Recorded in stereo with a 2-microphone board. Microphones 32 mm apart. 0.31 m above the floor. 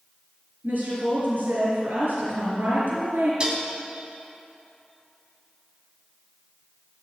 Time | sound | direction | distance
0.6 | a woman speaking | 75° right (ahead or behind) | 4 m
3.4 | dishes clattering | 30° right (ahead or behind) | 1.4 m